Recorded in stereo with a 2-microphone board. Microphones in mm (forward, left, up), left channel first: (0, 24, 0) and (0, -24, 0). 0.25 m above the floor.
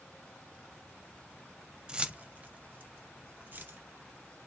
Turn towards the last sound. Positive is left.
turn(degrees=-40)  # may be behind; listen again after turning